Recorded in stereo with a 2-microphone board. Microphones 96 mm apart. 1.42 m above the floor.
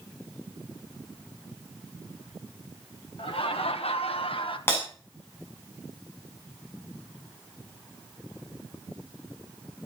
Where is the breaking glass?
25° left (ahead or behind), 7 m.